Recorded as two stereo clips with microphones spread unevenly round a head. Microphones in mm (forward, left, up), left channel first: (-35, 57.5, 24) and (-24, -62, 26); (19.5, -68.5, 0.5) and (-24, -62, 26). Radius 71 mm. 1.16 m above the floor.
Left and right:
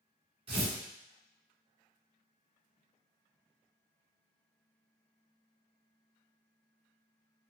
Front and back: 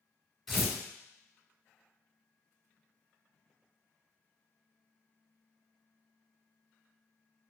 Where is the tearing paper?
120° right, 1.9 m.